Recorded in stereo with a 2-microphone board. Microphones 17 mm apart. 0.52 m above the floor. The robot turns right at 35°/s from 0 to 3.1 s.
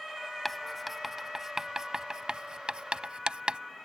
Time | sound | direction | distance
0.5 | writing | 5° left (ahead or behind) | ?